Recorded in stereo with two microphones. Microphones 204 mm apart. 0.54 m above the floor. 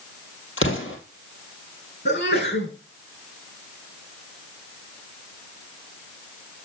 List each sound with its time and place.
0.6 s an explosion: 75° left (ahead or behind), 2.5 m
2.0 s a sneeze: 60° left (ahead or behind), 5.5 m